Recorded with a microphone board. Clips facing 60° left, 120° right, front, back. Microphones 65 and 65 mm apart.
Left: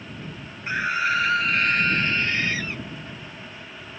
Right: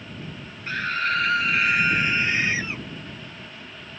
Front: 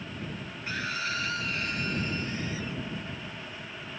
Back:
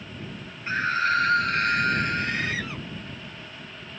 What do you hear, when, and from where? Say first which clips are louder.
0.7 s a scream: left 2 dB, back 10 dB; 130° left; by 2.9 s 170° left